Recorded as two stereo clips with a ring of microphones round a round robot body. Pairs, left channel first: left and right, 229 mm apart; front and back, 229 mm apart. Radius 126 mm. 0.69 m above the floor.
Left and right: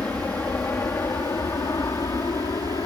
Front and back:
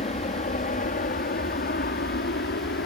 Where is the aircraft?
10° left; by 2.9 s 15° left.